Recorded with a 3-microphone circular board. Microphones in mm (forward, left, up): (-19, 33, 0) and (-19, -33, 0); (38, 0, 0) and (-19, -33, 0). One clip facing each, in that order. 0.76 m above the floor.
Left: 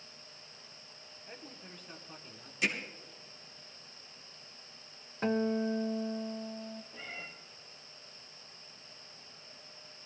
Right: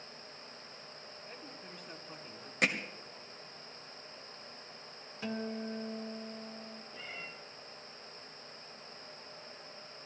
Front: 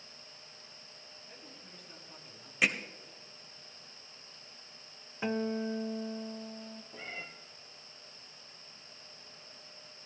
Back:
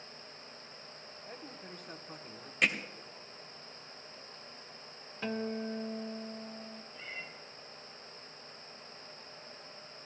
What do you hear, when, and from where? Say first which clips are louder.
1.3 s a man speaking: left 1 dB, back 8 dB; 175° left, 1.6 m; by 2.5 s 160° right, 1.7 m
2.6 s hammering: right 2 dB, even; 55° right, 1.5 m
5.2 s a guitar: left 8 dB, front 3 dB; 95° left, 0.7 m
6.9 s a cat meowing: left 1 dB, front 2 dB; 5° right, 2.5 m